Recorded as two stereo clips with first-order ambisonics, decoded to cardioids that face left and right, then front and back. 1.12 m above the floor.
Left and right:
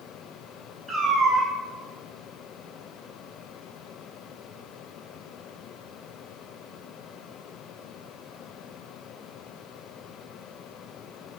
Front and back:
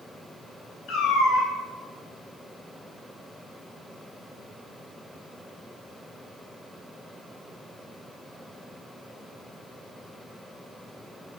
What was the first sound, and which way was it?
A cat meowing, 20° right.